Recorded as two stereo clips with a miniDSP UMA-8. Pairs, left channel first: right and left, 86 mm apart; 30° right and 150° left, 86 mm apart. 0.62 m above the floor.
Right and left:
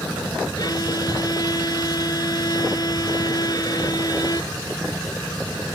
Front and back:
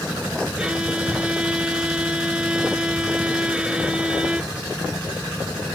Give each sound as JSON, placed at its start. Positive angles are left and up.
{"t": 0.6, "sound": "a violin", "azimuth_deg": -130}